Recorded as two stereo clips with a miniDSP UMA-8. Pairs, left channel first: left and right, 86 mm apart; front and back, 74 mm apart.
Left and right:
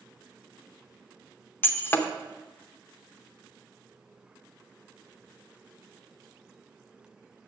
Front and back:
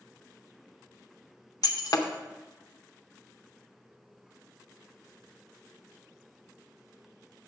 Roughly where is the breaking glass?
Ahead left.